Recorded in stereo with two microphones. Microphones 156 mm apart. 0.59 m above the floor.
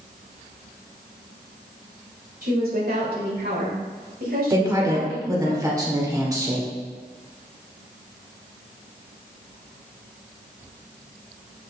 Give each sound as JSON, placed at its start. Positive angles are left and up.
{"t": 2.4, "sound": "a woman speaking", "side_deg": -65, "distance_m": 2.5}
{"t": 4.5, "sound": "a woman speaking", "side_deg": -20, "distance_m": 2.0}